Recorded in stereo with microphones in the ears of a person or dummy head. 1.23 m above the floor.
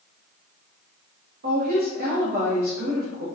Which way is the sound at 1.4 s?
50° right (ahead or behind).